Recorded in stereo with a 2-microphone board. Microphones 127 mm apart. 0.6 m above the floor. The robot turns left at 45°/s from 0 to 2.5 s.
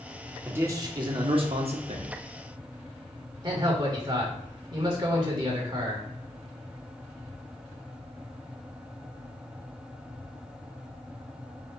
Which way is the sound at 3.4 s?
35° right (ahead or behind).